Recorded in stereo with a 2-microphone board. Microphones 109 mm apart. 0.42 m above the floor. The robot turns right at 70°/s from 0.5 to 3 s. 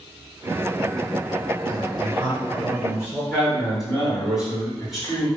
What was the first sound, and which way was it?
A man speaking, 125° right.